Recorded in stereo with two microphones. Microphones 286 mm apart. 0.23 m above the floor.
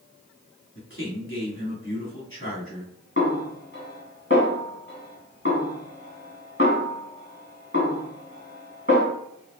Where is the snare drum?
45° left (ahead or behind), 2 m.